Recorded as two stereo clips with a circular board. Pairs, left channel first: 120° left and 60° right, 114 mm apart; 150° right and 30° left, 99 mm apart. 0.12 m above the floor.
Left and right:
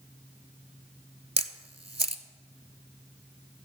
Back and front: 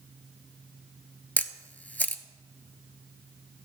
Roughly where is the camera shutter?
Right.